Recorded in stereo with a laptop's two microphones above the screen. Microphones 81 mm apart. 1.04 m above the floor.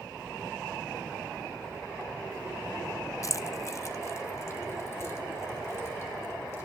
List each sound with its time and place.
3.2 s keys jangling: 40° left (ahead or behind), 0.5 m; by 6.6 s 35° left (ahead or behind), 3.5 m